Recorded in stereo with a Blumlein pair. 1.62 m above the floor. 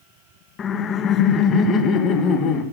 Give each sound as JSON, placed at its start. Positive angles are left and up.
{"t": 0.6, "sound": "laughter", "azimuth_deg": 25, "distance_m": 0.8}